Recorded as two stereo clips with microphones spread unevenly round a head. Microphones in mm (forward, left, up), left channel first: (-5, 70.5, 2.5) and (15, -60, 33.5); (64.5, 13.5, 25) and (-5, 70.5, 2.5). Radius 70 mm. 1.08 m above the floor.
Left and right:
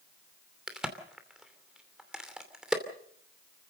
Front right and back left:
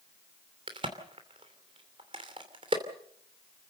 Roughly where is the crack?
Behind.